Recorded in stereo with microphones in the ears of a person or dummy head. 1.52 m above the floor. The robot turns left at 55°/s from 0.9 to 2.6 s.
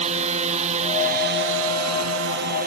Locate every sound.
0.0 s a drone: 40° right; by 2.7 s 130° right